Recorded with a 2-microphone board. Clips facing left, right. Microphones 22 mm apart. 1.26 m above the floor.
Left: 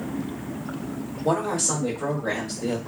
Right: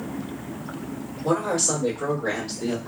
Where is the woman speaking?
60° right (ahead or behind), 2 m; by 2.8 s 50° right (ahead or behind), 1.3 m.